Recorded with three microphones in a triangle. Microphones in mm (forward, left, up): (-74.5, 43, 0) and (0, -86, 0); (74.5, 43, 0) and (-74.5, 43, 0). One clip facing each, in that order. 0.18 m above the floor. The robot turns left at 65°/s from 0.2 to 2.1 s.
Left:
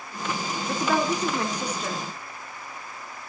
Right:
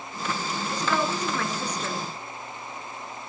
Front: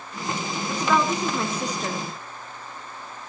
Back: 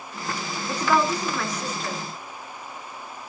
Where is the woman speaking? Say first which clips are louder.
Left 3 dB, even; 110° left, 2.5 m; by 2.0 s 25° left, 2.5 m.